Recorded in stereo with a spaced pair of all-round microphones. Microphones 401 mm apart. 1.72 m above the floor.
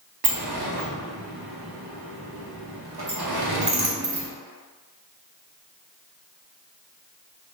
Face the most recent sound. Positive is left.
turn(degrees=-65)  # may be behind; listen again after turning